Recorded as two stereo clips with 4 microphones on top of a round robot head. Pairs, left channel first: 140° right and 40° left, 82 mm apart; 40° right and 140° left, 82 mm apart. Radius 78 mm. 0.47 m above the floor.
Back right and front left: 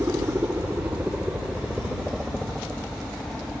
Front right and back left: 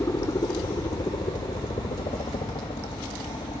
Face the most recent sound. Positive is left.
turn(degrees=-50)